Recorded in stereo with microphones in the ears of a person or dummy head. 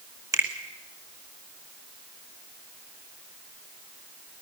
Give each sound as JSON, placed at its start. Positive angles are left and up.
{"t": 0.3, "sound": "a finger snap", "side_deg": -20, "distance_m": 2.0}